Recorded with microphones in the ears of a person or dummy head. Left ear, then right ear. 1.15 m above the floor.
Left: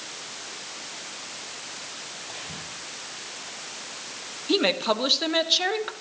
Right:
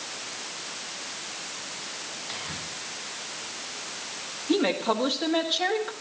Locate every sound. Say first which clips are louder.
2.3 s whispering: right 4 dB; 35° right (ahead or behind), 8 m
4.5 s a woman speaking: left 2 dB; 30° left (ahead or behind), 1.4 m